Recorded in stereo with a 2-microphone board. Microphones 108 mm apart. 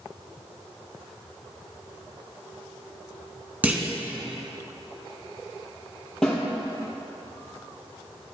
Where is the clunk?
15° right (ahead or behind), 0.8 m.